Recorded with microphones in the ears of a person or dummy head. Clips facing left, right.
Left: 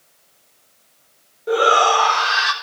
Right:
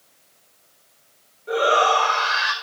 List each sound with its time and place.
1.5 s a shout: 75° left (ahead or behind), 5 m; by 2.5 s 70° left (ahead or behind), 4.5 m